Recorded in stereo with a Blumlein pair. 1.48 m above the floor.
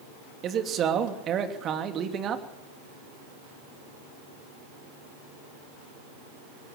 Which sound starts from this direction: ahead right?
A man speaking, at 0.4 s.